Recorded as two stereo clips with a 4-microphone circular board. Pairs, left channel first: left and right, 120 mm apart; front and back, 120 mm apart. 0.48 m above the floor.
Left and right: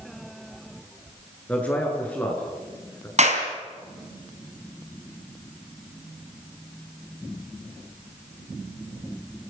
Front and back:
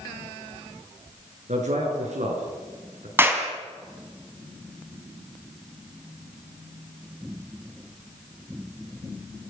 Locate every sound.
1.5 s a man speaking: 170° left, 7.5 m; by 3.1 s 165° left, 7 m
3.2 s a clap: 110° right, 3.5 m